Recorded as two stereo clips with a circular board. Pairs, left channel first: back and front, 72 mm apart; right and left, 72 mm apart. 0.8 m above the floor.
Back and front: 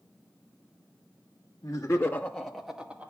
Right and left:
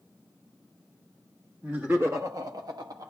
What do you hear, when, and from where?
1.6 s laughter: 160° left, 1.4 m; by 3.1 s 70° left, 1.8 m